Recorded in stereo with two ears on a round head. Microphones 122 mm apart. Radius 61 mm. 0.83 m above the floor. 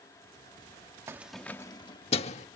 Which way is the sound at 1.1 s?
20° right (ahead or behind).